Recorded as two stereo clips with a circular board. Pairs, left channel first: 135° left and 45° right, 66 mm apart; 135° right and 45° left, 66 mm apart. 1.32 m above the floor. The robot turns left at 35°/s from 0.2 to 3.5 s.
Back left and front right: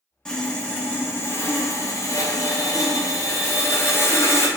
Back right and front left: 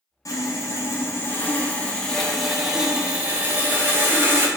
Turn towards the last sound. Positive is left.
turn(degrees=100)